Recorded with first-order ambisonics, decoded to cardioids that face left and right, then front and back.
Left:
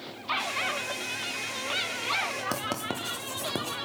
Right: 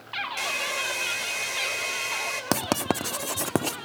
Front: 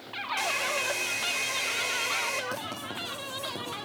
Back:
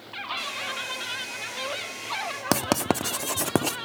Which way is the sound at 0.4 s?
55° right.